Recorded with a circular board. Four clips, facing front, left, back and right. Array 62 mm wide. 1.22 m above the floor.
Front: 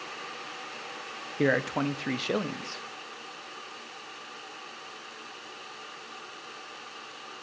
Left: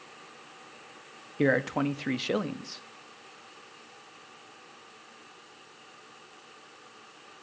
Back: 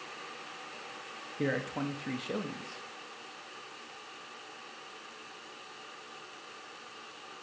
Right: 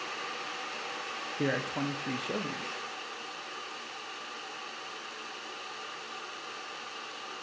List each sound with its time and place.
1.4 s a man speaking: 40° left, 0.6 m